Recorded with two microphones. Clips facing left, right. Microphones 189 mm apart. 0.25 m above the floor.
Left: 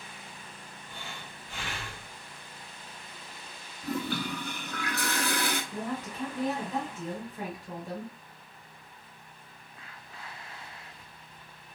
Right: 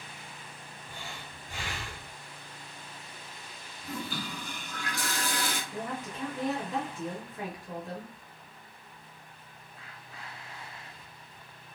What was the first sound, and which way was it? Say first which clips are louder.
Breathing: even; 15° right (ahead or behind).